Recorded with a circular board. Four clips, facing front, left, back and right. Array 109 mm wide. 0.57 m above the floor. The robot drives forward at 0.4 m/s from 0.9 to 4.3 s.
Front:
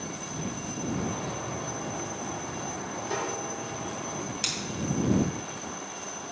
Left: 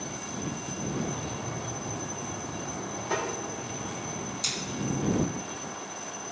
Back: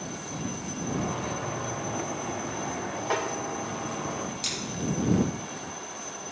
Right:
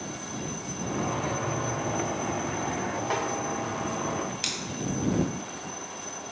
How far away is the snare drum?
About 3 m.